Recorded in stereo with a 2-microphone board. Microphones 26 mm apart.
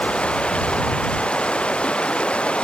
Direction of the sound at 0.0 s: 45° left (ahead or behind).